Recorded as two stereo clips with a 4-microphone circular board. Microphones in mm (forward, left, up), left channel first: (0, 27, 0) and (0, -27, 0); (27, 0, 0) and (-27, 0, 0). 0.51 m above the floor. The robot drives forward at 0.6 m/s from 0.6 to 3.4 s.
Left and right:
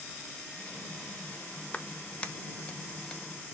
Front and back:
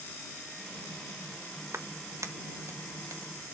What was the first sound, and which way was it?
A clap, 155° left.